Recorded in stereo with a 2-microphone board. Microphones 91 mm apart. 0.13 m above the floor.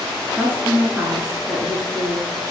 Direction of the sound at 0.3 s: 20° right (ahead or behind).